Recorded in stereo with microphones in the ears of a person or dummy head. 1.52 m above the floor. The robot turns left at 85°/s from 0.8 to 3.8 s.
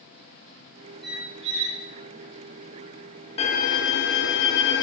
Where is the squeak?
5° right, 3 m; by 1.8 s 70° right, 3 m.